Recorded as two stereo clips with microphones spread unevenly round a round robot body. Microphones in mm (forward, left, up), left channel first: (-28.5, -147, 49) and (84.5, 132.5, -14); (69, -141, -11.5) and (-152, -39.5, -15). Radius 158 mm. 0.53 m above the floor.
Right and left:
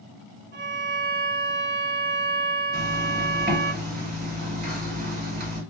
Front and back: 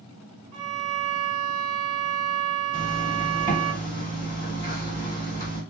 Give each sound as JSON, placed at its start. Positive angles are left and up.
{"t": 0.5, "sound": "a violin", "azimuth_deg": 130, "distance_m": 0.6}
{"t": 2.7, "sound": "a zipper", "azimuth_deg": 100, "distance_m": 1.6}